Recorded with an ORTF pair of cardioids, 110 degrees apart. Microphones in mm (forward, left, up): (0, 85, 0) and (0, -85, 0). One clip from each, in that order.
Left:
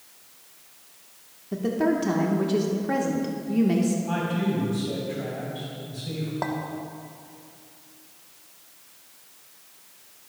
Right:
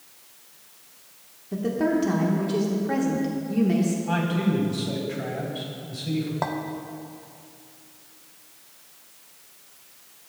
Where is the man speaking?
15° right, 3 m.